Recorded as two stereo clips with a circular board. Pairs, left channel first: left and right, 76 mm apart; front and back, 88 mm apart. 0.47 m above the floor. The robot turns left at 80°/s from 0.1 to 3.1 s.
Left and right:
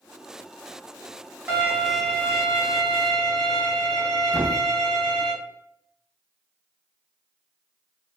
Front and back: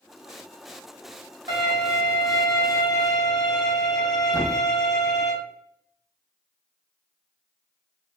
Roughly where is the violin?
Behind right.